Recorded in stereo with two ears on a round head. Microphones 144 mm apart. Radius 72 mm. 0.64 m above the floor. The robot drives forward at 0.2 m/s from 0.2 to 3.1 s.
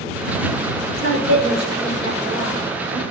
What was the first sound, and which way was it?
A woman speaking, 45° right (ahead or behind).